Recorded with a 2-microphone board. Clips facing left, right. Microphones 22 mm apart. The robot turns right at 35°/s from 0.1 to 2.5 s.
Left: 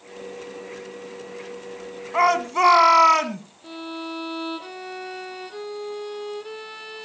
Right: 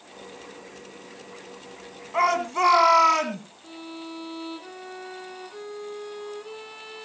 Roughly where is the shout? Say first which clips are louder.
Left 3 dB; centre.